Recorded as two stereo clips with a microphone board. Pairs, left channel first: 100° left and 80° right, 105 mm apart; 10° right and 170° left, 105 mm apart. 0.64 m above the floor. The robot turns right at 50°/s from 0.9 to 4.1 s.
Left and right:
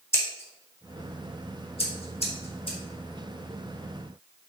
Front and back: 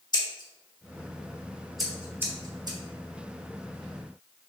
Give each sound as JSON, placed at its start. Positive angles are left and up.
{"t": 0.1, "sound": "scissors", "azimuth_deg": 35, "distance_m": 0.9}